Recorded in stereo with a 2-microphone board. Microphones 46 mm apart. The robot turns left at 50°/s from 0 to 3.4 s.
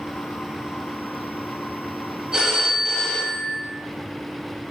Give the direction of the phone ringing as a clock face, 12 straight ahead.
6 o'clock.